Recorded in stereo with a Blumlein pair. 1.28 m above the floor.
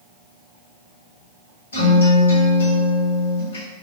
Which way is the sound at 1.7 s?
70° left.